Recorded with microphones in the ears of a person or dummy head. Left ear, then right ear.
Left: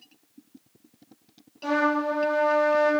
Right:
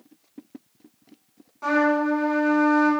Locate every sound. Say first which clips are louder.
1.6 s a trumpet: right 3 dB; 50° right (ahead or behind), 1.5 m